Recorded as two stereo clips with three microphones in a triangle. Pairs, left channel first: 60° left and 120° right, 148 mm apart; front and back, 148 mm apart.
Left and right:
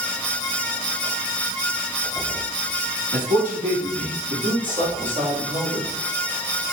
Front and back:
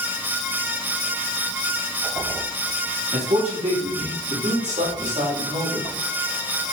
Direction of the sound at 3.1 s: 145° right.